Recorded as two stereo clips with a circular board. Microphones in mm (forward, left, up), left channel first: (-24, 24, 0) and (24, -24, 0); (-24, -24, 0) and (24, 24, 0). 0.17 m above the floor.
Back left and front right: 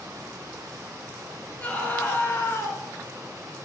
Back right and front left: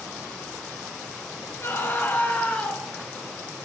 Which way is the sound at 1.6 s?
165° right.